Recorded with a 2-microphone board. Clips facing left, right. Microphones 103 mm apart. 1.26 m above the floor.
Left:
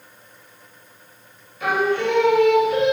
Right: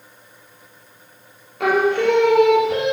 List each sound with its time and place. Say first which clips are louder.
1.6 s singing: right 4 dB; 75° right (ahead or behind), 2.5 m